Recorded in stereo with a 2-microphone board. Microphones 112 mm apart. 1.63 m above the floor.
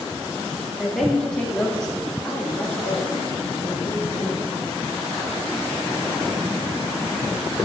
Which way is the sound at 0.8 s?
Centre (ahead or behind).